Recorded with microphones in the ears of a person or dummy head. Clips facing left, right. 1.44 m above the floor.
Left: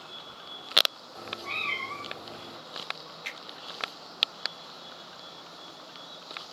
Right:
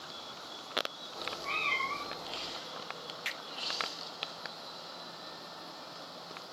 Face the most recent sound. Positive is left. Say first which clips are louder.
# even
turn(degrees=-10)  # may be behind; listen again after turning